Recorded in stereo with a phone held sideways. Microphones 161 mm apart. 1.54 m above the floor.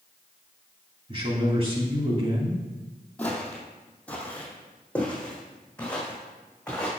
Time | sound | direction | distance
1.1 | a man speaking | 40° right (ahead or behind) | 3 m
3.2 | footsteps | 10° left (ahead or behind) | 2.5 m